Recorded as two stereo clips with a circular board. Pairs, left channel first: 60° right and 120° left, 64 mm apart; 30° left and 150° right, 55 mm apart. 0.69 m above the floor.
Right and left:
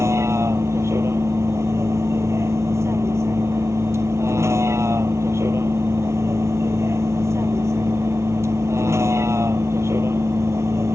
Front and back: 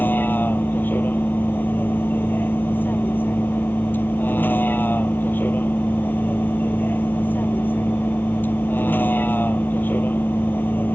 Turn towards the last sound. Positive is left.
turn(degrees=80)